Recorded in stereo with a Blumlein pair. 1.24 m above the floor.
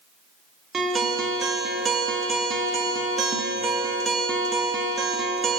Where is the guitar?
15° right, 1.1 m.